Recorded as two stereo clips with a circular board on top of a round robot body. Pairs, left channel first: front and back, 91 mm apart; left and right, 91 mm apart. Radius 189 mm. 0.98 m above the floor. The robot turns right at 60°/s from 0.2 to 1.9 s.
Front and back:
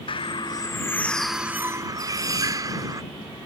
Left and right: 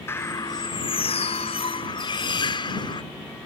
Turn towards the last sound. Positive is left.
turn(degrees=125)